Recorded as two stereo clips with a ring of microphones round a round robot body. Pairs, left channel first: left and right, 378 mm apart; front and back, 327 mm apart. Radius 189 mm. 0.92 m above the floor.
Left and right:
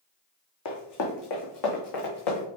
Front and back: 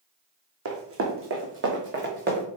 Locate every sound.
0.7 s running footsteps: 135° left, 2.5 m; by 2.5 s 120° left, 4 m